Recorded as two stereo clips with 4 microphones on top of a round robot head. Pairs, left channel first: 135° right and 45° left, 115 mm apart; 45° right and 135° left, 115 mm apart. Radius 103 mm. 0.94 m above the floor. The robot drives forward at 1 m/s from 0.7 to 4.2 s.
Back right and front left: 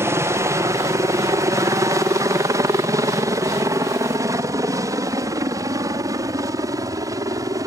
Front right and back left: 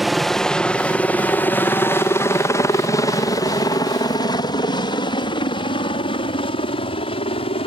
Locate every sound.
0.0 s a helicopter: 45° left; by 7.7 s 15° right